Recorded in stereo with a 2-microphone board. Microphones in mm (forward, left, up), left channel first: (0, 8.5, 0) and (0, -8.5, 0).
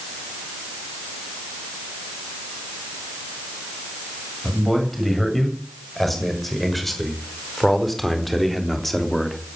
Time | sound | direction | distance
4.4 | a man speaking | 10° left (ahead or behind) | 8 m